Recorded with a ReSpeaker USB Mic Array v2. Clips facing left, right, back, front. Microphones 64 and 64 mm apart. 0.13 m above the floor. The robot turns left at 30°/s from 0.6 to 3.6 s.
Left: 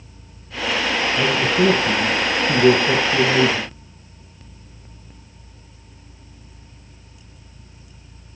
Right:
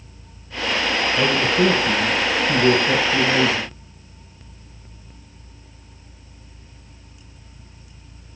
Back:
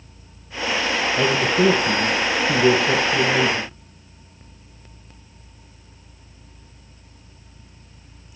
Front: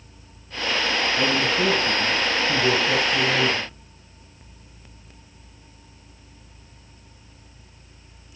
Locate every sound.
1.1 s a man speaking: straight behind, 3.5 m; by 3.7 s 105° left, 3.5 m